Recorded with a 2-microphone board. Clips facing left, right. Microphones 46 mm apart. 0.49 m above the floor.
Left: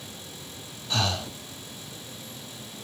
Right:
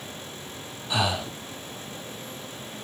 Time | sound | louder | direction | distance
0.9 | breathing | right 2 dB | 15° right (ahead or behind) | 0.6 m